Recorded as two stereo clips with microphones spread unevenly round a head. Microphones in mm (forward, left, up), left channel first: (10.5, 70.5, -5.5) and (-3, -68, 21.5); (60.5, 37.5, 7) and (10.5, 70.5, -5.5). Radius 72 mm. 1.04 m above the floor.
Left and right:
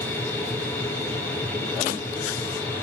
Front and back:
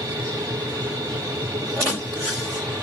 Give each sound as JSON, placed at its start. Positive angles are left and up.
{"t": 0.0, "sound": "a machine running", "azimuth_deg": 160, "distance_m": 3.0}